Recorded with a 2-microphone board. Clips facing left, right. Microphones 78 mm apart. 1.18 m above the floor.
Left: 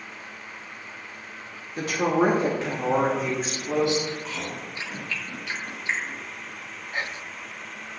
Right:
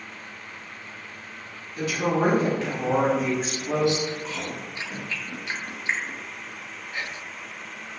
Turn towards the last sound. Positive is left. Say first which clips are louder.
# left 3 dB
turn(degrees=40)  # may be behind; listen again after turning